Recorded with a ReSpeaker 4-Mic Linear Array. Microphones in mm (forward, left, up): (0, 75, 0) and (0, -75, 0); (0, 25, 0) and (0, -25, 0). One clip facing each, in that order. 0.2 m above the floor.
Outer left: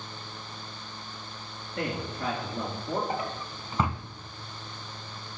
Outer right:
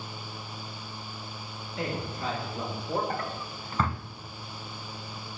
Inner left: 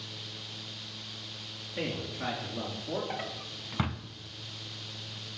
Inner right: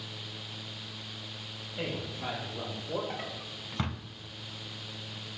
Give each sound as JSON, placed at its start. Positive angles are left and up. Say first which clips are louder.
{"t": 1.8, "sound": "a man speaking", "louder": "outer left 1 dB, inner left 2 dB", "side_deg": 60, "distance_m": 3.0}
{"t": 3.1, "sound": "a drawer", "louder": "outer left 1 dB, inner left 1 dB", "side_deg": 15, "distance_m": 0.6}